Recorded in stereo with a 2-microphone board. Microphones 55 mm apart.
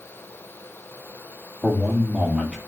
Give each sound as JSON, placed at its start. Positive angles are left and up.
{"t": 1.6, "sound": "a man speaking", "side_deg": -20, "distance_m": 3.5}